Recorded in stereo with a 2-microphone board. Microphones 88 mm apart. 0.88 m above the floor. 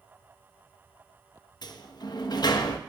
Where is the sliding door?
55° left (ahead or behind), 0.7 m.